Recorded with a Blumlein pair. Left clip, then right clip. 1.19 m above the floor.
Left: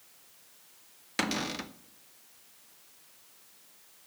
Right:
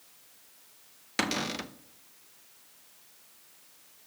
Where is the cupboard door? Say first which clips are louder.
Right 1 dB; 5° right, 0.6 m.